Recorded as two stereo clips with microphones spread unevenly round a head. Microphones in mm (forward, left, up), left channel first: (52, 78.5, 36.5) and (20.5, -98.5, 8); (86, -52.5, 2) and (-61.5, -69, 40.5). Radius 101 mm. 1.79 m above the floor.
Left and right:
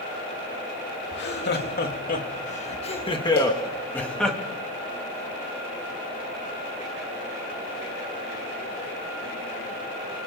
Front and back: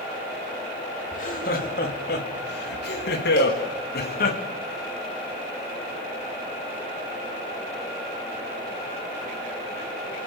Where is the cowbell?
50° left, 7 m.